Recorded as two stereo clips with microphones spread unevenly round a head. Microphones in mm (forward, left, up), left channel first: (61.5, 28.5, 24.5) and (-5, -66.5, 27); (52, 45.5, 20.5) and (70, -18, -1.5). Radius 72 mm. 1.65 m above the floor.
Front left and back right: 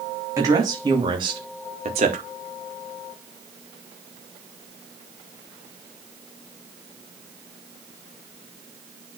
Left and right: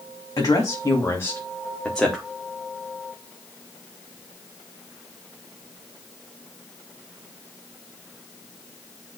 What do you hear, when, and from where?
0.4 s a woman speaking: 165° left, 3.5 m; by 2.2 s 165° right, 2 m